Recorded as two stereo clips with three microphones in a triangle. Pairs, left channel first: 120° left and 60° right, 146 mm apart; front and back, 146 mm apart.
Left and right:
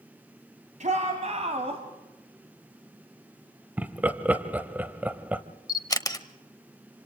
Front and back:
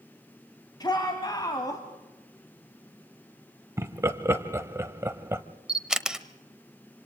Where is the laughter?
130° right, 1.0 m.